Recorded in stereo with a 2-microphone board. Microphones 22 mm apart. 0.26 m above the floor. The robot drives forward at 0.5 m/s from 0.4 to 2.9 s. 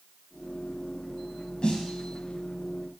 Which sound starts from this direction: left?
A snare drum, at 1.6 s.